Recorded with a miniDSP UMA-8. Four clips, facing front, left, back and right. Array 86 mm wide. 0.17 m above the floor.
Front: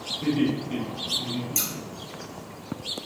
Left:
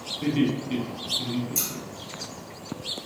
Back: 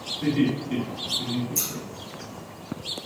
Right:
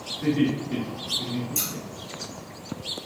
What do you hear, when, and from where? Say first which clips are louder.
0.2 s laughter: right 1 dB, back 1 dB; 90° left, 1.5 m
1.6 s scissors: right 1 dB, front 1 dB; 5° left, 2.5 m